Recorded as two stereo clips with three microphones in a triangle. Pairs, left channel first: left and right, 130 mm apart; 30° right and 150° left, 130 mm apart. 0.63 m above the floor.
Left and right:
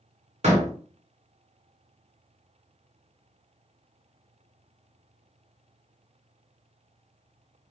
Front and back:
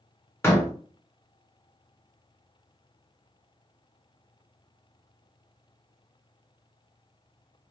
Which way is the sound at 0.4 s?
100° right.